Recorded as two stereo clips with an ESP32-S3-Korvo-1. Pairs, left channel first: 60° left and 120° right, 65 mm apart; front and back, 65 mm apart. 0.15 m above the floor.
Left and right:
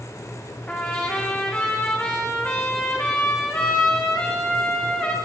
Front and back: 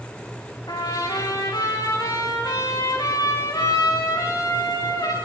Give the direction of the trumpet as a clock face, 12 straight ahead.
12 o'clock.